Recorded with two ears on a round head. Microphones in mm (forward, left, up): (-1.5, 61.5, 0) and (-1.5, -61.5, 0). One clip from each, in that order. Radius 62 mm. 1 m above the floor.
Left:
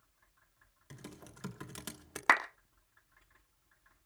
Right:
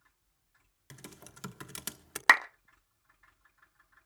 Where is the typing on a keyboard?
40° right (ahead or behind), 1.1 m.